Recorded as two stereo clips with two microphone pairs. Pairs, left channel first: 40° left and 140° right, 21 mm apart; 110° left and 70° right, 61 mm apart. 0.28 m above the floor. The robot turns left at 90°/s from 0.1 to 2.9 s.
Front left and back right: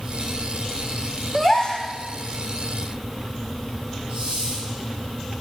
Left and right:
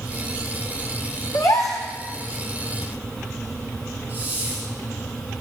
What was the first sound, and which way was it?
A gasp, 120° left.